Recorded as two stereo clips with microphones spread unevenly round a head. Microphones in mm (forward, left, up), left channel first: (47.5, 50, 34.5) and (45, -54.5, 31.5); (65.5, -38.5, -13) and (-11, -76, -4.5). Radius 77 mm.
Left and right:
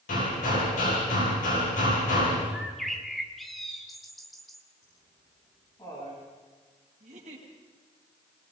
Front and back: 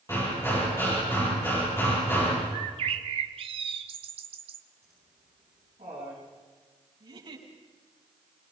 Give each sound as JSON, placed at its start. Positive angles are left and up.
{"t": 0.1, "sound": "hammering", "azimuth_deg": 100, "distance_m": 9.0}
{"t": 2.5, "sound": "a bird", "azimuth_deg": 175, "distance_m": 1.0}
{"t": 4.8, "sound": "laughter", "azimuth_deg": 155, "distance_m": 8.5}
{"t": 7.0, "sound": "a giggle", "azimuth_deg": -130, "distance_m": 6.0}